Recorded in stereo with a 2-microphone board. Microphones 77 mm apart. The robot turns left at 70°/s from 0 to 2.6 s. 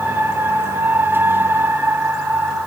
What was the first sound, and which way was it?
Only background noise.